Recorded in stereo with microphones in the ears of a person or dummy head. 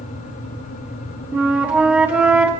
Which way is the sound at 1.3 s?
5° right (ahead or behind).